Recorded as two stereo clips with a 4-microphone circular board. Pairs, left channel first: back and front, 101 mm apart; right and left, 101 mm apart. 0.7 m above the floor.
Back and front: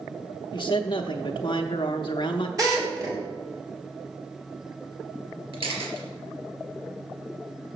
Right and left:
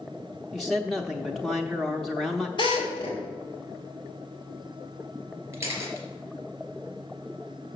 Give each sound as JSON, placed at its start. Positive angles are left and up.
{"t": 0.5, "sound": "a man speaking", "azimuth_deg": 180, "distance_m": 0.7}
{"t": 2.6, "sound": "a drill", "azimuth_deg": -55, "distance_m": 3.5}
{"t": 5.5, "sound": "a camera shutter", "azimuth_deg": 30, "distance_m": 3.0}